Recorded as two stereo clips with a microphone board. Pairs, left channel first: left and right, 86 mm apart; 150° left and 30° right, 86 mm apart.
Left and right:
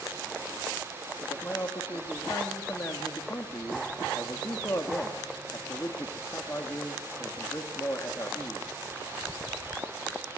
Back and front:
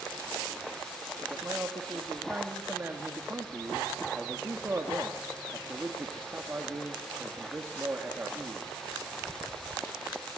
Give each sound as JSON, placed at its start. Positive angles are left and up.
{"t": 1.2, "sound": "a man speaking", "azimuth_deg": 35, "distance_m": 2.0}